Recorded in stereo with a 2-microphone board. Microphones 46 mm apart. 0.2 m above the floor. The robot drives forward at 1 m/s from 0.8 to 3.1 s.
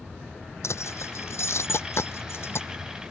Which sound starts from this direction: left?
Keys jangling, at 0.6 s.